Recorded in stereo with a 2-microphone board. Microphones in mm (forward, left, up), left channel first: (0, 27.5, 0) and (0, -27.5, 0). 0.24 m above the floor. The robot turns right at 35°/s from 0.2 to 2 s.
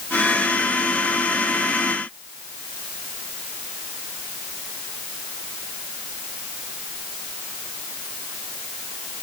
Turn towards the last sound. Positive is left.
No sound to turn to.